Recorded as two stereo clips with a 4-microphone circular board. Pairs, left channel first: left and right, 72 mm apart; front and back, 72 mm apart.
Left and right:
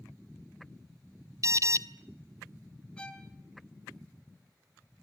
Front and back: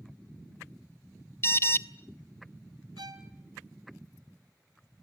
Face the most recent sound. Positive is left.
turn(degrees=165)